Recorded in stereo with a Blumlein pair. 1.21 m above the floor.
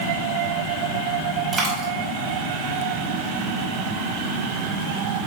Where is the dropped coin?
5° right, 2.5 m.